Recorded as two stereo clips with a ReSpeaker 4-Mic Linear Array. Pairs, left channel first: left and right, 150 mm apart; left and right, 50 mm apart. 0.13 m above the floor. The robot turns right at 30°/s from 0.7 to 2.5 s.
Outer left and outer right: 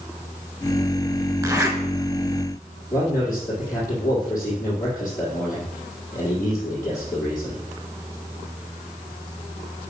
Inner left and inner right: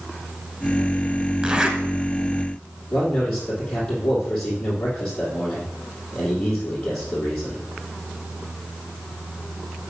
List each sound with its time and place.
1.4 s a zipper: 25° right (ahead or behind), 1.3 m; by 1.8 s 20° right (ahead or behind), 1.3 m
2.9 s a man speaking: 10° left (ahead or behind), 4 m